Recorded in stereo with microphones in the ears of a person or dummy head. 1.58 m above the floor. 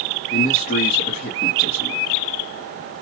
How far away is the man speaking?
About 1.0 m.